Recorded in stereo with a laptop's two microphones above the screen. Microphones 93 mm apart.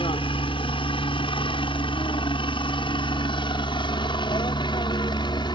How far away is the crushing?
No crushing in this recording.